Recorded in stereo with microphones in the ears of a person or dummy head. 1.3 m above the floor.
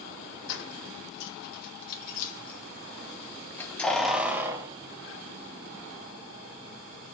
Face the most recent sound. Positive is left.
turn(degrees=-55)  # may be behind; listen again after turning